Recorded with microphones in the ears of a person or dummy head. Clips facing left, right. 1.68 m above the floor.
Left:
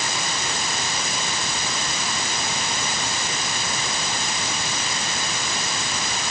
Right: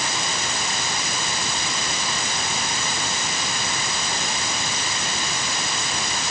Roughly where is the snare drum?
I don't hear a snare drum.